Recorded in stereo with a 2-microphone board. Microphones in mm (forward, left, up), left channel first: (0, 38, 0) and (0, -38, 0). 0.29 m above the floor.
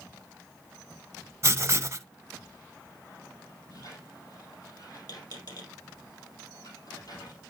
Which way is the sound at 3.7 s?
55° left (ahead or behind).